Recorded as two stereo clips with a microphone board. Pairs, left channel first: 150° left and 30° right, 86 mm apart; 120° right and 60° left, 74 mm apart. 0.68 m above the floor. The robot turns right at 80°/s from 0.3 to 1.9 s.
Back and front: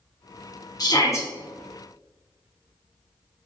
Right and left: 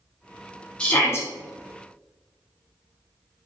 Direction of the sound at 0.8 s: 165° left.